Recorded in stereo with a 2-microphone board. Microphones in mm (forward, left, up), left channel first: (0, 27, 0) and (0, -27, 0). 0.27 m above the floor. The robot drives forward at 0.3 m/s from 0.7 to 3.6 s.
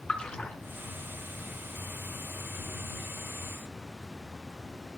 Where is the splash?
20° left (ahead or behind), 3.5 m.